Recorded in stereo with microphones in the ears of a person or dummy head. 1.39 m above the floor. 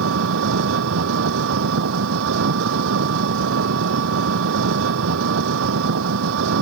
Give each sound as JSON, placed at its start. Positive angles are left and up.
{"t": 0.0, "sound": "an engine running", "side_deg": -75}